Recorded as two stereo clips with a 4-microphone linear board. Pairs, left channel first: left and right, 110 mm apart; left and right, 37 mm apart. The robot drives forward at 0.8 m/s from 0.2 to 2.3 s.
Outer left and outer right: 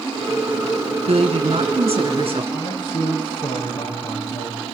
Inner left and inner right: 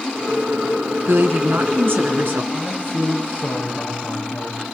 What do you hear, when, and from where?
1.1 s a woman speaking: 75° right (ahead or behind), 3 m; by 2.4 s 60° right (ahead or behind), 3 m
2.5 s a man speaking: 40° left (ahead or behind), 9.5 m